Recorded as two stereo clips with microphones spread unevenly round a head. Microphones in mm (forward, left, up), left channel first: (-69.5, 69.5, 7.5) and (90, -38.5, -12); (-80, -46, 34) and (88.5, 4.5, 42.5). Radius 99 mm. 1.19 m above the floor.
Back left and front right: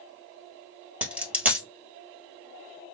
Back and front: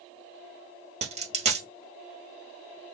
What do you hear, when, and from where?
1.0 s a dropped coin: 55° left, 1.4 m